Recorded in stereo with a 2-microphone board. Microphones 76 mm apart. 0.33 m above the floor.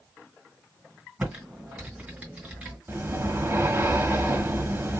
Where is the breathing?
30° right (ahead or behind), 0.5 m.